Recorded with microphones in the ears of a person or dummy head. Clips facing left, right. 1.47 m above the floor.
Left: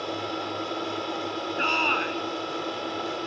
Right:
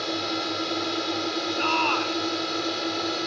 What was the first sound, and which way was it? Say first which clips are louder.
A drone: right 2 dB; 25° right (ahead or behind).